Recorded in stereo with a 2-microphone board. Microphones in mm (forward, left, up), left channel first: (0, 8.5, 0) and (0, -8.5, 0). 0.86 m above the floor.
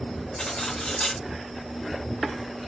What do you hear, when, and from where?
0.4 s cutlery clinking: 80° left, 3 m